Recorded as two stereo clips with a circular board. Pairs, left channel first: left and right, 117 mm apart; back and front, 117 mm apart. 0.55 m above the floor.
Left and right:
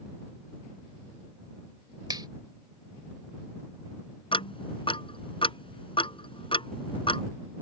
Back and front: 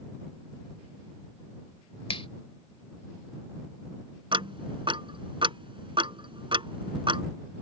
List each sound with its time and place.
2.1 s a finger snap: 145° right
4.3 s ticking: 45° left